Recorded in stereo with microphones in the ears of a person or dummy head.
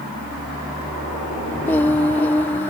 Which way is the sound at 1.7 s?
10° left (ahead or behind).